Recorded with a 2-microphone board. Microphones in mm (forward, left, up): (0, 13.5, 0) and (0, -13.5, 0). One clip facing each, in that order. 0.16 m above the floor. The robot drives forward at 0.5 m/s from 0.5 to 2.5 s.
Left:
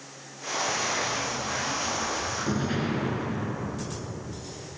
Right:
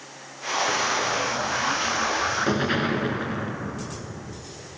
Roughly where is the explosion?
Right.